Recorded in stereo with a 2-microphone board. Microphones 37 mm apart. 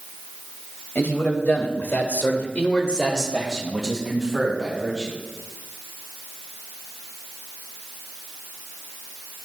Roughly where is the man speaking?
Left.